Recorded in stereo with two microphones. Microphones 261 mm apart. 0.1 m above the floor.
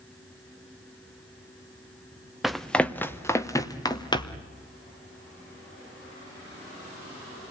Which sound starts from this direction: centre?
Running footsteps, at 2.4 s.